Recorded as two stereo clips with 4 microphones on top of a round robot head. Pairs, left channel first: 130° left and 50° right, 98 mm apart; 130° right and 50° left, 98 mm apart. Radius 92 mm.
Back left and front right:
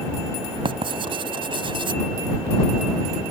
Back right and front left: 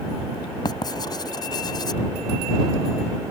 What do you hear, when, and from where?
0.7 s writing: 85° right